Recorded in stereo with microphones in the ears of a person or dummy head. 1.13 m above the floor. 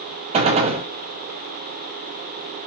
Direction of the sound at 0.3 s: 35° right (ahead or behind).